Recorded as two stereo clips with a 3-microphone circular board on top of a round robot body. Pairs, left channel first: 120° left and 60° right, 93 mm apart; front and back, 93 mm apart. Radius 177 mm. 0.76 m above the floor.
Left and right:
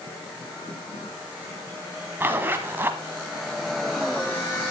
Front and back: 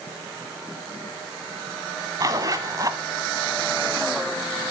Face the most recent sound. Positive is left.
turn(degrees=-130)